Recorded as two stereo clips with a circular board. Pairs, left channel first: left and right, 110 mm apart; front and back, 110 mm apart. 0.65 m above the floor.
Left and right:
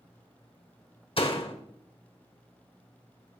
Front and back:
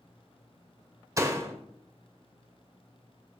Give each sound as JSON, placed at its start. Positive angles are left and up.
{"t": 1.2, "sound": "a door slam", "azimuth_deg": 120, "distance_m": 1.8}